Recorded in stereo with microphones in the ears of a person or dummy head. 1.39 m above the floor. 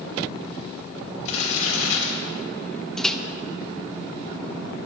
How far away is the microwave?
About 0.8 m.